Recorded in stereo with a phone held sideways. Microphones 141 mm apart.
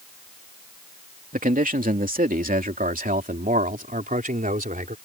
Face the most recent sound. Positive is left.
turn(degrees=-75)  # may be behind; listen again after turning